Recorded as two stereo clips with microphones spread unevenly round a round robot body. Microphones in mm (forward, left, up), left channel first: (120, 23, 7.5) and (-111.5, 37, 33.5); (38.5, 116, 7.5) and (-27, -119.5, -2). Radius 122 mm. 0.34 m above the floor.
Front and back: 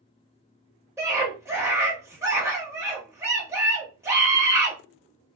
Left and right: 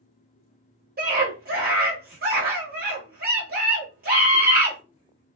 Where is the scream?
105° right, 1.1 m.